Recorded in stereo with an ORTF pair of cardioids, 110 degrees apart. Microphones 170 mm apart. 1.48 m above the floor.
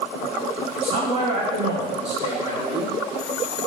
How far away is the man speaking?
About 1.3 m.